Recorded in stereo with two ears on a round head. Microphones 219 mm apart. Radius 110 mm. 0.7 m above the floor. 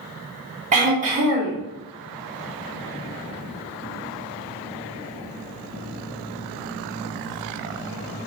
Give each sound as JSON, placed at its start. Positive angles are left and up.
{"t": 0.7, "sound": "throat clearing", "side_deg": -30, "distance_m": 1.7}